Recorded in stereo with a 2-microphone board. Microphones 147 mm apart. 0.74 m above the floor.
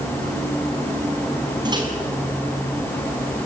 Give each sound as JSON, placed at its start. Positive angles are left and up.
{"t": 1.6, "sound": "a microwave", "side_deg": -30, "distance_m": 5.5}